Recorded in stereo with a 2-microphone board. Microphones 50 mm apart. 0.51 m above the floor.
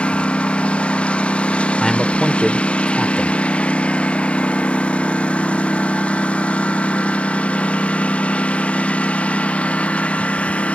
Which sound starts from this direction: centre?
A man speaking, at 1.8 s.